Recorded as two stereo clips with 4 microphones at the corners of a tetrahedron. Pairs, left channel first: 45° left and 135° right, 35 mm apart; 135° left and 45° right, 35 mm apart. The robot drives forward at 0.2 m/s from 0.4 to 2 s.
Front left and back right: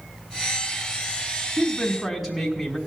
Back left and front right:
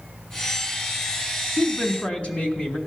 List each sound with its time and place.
1.6 s a woman speaking: 140° left, 1.1 m; by 2.8 s 145° left, 1.2 m